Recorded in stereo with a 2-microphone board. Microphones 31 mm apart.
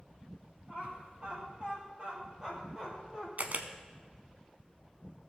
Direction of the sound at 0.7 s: 45° right (ahead or behind).